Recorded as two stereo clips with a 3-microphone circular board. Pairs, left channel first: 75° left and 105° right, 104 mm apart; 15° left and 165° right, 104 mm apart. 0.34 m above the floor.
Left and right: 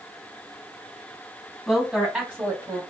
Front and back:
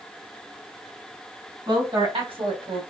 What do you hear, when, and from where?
1.7 s a woman speaking: 165° left, 2.5 m; by 2.8 s 155° right, 1.9 m